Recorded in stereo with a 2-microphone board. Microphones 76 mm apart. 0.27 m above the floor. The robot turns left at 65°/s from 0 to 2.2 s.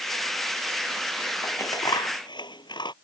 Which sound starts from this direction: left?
Scissors, at 1.4 s.